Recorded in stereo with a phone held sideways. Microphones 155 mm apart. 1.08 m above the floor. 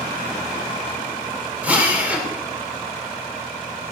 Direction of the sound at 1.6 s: 10° right (ahead or behind).